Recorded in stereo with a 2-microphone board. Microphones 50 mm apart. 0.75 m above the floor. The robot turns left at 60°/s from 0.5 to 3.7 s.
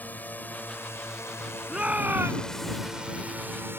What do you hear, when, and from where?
0.0 s a drone: 35° left (ahead or behind); by 3.8 s 50° right (ahead or behind)
1.7 s a shout: 15° right; by 2.8 s 85° right